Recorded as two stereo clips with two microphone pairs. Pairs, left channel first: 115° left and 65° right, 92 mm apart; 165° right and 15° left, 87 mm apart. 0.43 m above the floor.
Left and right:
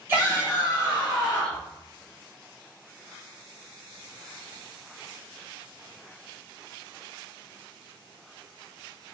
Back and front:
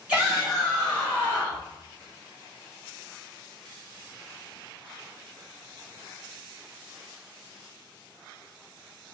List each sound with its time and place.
0.1 s a shout: 45° right, 1.4 m; by 1.7 s 165° right, 1.5 m